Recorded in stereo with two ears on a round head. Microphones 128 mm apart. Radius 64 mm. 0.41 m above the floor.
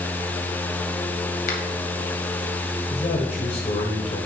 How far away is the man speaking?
About 1.7 m.